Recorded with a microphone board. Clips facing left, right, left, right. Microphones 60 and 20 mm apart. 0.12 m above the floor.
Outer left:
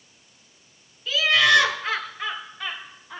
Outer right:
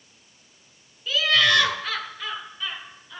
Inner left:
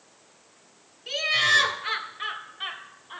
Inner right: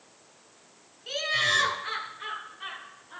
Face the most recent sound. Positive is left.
turn(degrees=40)  # may be behind; listen again after turning